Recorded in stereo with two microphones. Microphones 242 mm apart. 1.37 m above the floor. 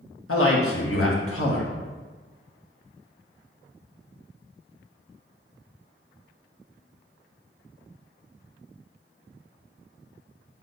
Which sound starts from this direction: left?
A man speaking, at 0.3 s.